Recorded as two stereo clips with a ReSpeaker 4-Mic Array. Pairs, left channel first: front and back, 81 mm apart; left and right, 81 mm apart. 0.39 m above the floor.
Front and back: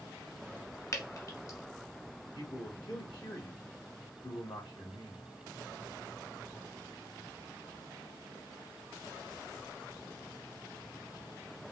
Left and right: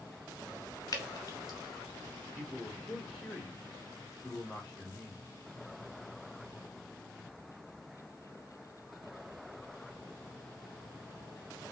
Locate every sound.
0.9 s dripping: 45° left, 1.4 m
2.4 s a man speaking: 5° left, 3.5 m